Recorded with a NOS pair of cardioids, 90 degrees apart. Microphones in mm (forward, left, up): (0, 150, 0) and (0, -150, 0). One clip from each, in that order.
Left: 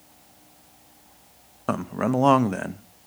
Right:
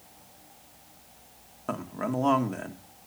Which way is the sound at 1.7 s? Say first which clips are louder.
Left 6 dB; 40° left.